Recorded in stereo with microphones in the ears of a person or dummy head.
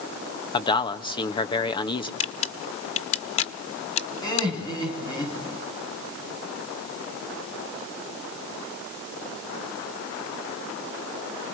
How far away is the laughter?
About 9 m.